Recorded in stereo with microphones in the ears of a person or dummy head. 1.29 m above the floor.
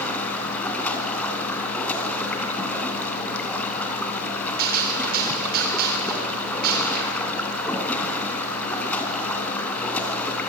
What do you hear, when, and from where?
0.0 s running water: 10° left (ahead or behind), 3 m
4.6 s a gunshot: 55° right (ahead or behind), 4 m